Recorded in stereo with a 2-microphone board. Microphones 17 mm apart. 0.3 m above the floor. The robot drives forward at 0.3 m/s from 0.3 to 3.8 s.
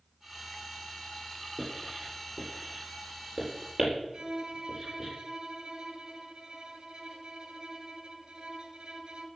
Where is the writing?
50° right (ahead or behind), 6.5 m.